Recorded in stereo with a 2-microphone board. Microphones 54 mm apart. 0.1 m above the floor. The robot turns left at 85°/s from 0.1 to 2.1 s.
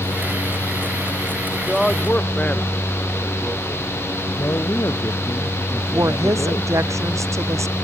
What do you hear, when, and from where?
1.7 s a man speaking: 170° right; by 3.9 s 150° left
4.4 s a man speaking: 65° left (ahead or behind)
5.9 s a woman speaking: 70° right (ahead or behind)